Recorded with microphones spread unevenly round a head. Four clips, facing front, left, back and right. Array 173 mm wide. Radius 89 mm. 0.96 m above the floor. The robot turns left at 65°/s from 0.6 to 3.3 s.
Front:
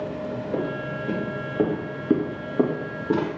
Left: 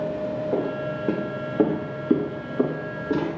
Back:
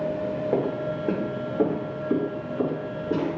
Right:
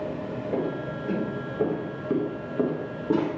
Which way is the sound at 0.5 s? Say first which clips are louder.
Left 3 dB, back 2 dB; 155° left.